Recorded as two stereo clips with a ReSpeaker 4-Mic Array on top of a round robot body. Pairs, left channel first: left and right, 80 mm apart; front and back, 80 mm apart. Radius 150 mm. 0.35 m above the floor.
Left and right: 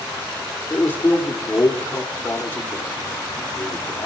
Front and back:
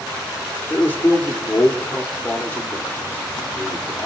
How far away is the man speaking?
About 1.7 m.